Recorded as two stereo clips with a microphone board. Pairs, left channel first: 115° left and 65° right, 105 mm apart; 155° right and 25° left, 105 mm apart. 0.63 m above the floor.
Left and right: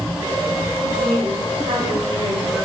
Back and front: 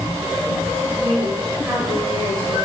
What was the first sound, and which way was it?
A woman speaking, 40° right.